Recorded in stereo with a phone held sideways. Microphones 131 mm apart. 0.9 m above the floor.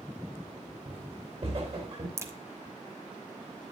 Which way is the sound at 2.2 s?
20° right (ahead or behind).